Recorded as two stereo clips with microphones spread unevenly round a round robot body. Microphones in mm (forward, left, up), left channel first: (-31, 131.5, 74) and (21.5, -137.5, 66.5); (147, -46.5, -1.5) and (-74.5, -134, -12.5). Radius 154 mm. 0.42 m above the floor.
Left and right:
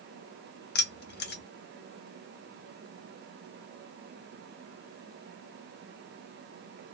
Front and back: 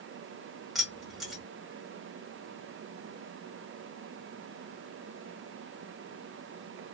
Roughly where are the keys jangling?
Behind left.